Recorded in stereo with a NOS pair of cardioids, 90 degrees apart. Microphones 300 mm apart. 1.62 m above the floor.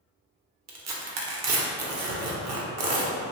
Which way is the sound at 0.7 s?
60° right.